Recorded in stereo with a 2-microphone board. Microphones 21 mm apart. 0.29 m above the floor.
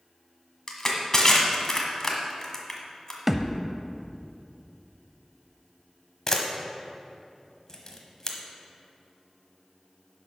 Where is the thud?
15° right (ahead or behind), 0.6 m.